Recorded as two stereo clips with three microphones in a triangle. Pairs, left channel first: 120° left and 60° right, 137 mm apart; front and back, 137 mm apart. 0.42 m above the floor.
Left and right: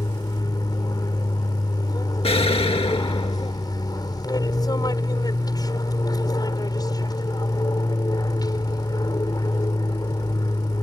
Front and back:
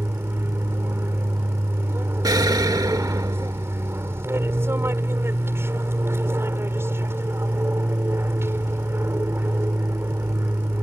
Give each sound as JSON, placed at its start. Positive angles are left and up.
{"t": 0.0, "sound": "an aircraft", "azimuth_deg": 130}
{"t": 2.2, "sound": "an explosion", "azimuth_deg": 130}